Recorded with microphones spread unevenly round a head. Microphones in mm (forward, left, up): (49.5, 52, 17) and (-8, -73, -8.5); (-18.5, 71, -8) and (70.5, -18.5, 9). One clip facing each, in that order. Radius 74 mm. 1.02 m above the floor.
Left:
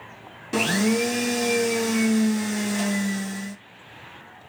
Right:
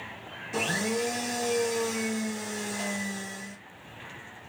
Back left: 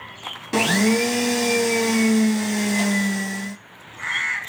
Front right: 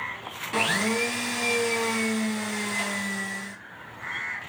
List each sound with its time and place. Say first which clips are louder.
0.5 s a blender: left 8 dB, back left 8 dB; 85° left, 0.5 m